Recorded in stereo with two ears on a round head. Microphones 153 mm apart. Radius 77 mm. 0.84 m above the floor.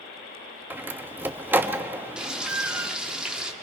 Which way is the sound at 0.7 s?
10° right (ahead or behind).